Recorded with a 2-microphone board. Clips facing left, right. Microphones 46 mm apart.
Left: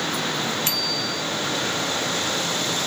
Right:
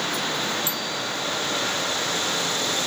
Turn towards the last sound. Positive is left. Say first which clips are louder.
# left 2 dB
turn(degrees=70)  # may be behind; listen again after turning